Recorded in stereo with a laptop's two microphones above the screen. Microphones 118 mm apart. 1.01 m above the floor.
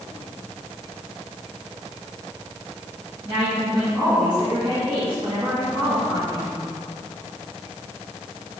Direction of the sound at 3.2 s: 45° right (ahead or behind).